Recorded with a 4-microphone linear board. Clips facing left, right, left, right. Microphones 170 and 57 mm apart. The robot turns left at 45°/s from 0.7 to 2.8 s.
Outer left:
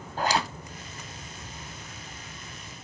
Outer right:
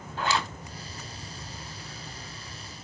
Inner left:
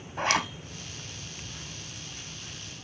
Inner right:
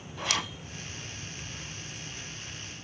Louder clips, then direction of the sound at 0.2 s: Outer left 2 dB, inner left 6 dB; 40° left (ahead or behind).